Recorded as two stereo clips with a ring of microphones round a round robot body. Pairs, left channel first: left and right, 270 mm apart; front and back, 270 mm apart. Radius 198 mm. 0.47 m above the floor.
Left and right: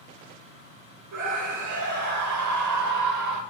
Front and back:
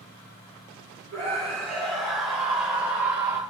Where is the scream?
80° right, 4.5 m; by 3.4 s 100° right, 3.5 m.